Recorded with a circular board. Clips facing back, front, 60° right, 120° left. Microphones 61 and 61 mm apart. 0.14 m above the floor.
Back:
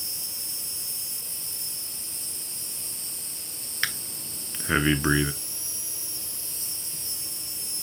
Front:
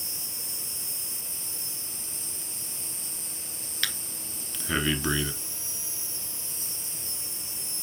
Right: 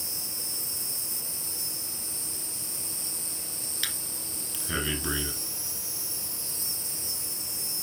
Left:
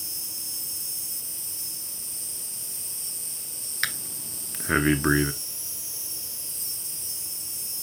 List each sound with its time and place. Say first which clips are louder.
0.0 s an insect: even, right 3 dB; 155° right, 3.5 m
3.8 s breathing: back 4 dB, left 8 dB; 130° left, 0.6 m